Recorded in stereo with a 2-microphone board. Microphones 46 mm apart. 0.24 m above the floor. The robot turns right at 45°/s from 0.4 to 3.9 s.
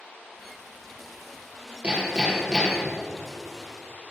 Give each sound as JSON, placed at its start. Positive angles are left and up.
{"t": 1.8, "sound": "hammering", "azimuth_deg": -40, "distance_m": 3.5}